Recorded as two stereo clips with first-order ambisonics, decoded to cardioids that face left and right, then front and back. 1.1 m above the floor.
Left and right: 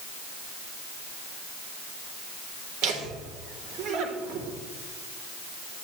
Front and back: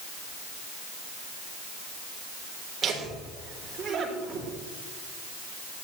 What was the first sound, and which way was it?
Laughter, 115° right.